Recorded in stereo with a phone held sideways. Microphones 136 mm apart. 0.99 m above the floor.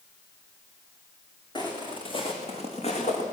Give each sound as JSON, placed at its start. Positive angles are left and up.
{"t": 1.6, "sound": "footsteps", "side_deg": 30, "distance_m": 4.5}